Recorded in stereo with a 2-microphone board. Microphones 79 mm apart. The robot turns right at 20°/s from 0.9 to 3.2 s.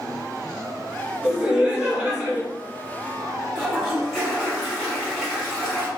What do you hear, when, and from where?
1.2 s laughter: 15° right (ahead or behind), 1.4 m; by 2.4 s 20° right (ahead or behind), 1.4 m
3.5 s a toilet flushing: centre (ahead or behind), 1.6 m